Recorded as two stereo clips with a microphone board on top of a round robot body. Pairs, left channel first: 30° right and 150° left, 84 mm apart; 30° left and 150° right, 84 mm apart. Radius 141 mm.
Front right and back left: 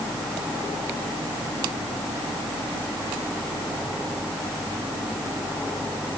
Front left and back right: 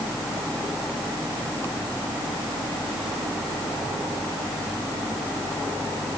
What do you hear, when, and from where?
Only background noise.